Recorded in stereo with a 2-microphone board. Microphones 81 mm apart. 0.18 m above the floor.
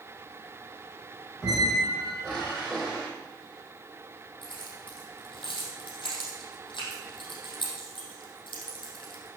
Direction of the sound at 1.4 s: 5° left (ahead or behind).